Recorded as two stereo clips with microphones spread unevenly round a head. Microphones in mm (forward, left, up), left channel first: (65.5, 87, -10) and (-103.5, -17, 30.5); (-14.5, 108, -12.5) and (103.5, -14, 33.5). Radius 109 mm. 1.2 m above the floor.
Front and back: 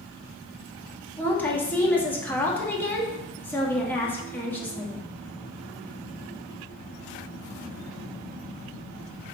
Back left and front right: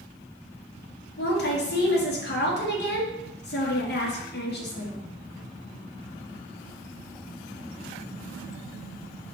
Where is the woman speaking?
115° left, 1.8 m.